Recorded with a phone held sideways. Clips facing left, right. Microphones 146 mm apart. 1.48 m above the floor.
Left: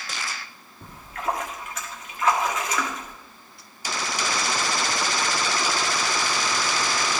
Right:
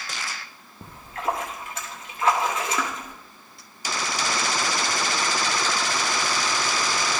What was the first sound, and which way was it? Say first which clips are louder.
A splash: right 1 dB; 30° right (ahead or behind).